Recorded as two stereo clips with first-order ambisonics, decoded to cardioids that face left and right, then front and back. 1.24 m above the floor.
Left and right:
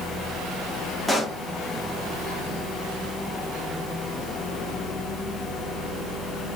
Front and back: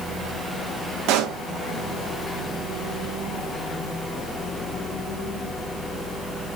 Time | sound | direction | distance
1.1 | a pop | 175° left | 0.5 m